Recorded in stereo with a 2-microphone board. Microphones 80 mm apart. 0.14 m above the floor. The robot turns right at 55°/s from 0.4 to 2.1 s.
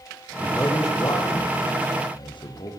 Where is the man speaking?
15° left (ahead or behind), 7.5 m; by 2.7 s 65° left (ahead or behind), 7.5 m.